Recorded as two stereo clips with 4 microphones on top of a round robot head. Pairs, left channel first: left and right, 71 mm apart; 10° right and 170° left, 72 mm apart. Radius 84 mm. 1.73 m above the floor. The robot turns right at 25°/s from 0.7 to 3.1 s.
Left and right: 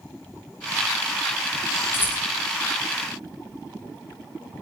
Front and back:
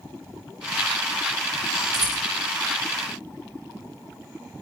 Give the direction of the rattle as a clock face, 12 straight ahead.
7 o'clock.